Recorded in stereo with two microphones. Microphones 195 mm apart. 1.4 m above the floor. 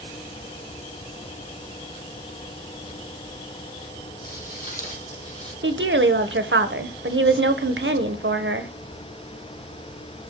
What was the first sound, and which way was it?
Footsteps, 50° left (ahead or behind).